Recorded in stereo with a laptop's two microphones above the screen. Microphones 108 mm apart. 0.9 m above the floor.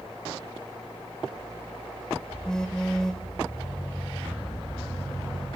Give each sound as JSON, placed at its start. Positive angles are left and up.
{"t": 2.5, "sound": "a phone buzzing", "side_deg": 5, "distance_m": 1.1}